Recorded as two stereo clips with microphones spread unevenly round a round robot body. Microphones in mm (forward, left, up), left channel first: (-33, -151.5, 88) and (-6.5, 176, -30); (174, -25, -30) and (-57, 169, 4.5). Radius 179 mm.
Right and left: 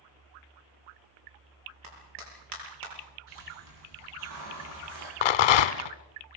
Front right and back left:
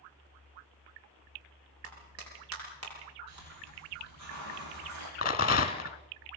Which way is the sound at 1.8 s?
100° left.